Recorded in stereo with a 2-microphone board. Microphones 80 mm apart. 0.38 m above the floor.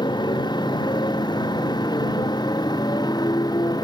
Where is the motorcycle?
65° left (ahead or behind); by 3.9 s 55° left (ahead or behind).